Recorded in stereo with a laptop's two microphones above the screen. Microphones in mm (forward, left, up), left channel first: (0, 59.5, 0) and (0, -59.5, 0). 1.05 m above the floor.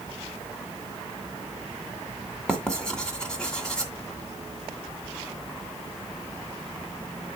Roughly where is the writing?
Centre.